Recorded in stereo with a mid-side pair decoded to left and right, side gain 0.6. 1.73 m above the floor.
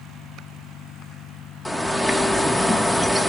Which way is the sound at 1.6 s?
Straight ahead.